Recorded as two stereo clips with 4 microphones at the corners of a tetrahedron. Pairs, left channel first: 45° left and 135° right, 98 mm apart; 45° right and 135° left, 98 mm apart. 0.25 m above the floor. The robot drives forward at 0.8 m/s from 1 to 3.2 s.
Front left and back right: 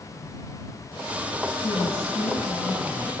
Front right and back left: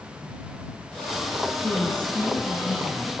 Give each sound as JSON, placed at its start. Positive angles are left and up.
{"t": 1.6, "sound": "a woman speaking", "azimuth_deg": 20, "distance_m": 2.5}